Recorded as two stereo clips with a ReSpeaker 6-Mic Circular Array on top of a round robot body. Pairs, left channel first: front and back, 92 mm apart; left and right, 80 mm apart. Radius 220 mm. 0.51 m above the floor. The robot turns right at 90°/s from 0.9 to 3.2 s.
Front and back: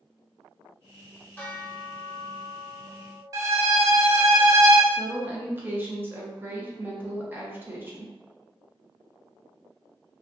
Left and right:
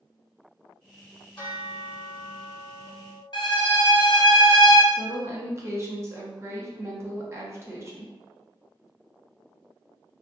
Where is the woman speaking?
125° right, 0.9 m.